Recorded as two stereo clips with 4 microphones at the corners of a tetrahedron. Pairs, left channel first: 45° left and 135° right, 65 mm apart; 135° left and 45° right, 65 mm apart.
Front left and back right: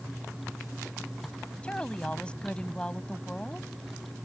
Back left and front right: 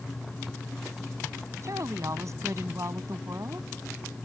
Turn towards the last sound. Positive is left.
turn(degrees=-25)